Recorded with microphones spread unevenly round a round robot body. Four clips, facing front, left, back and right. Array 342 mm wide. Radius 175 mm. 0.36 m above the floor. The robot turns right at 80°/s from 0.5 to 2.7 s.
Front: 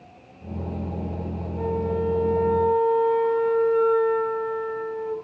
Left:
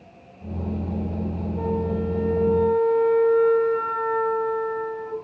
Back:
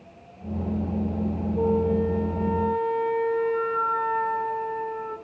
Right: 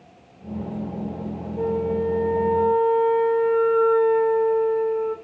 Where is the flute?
Straight ahead, 2.5 m; by 5.1 s 90° left, 2.5 m.